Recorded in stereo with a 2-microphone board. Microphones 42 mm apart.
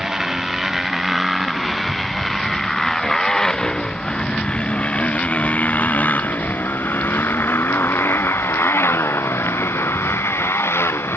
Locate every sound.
0.0 s a motorcycle: 10° right (ahead or behind); by 11.2 s 85° left